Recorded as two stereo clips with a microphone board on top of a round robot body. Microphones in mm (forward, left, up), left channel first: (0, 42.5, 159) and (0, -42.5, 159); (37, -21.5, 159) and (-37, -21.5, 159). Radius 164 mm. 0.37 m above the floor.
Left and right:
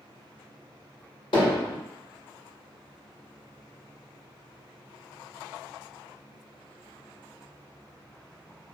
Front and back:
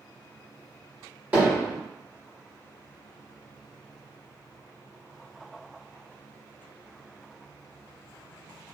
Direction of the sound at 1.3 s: 105° left.